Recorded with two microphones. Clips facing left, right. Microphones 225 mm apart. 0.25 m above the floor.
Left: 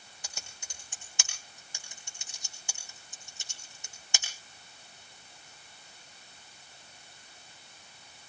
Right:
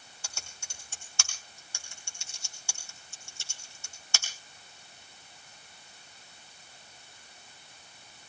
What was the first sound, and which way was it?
Typing on a keyboard, 15° left (ahead or behind).